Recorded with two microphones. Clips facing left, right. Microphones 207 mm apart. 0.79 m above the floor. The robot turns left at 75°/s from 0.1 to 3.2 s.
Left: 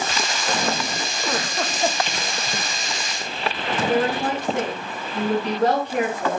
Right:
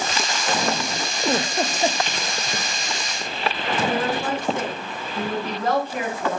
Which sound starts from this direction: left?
A woman speaking, at 3.9 s.